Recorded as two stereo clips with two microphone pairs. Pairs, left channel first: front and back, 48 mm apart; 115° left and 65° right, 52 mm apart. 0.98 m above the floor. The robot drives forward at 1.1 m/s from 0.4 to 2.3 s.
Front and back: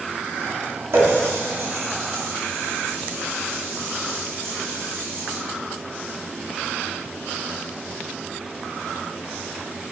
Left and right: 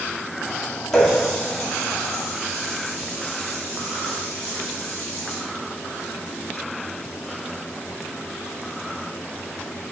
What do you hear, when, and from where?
0.9 s a running tap: 165° right, 1.1 m; by 5.4 s 175° right, 2.5 m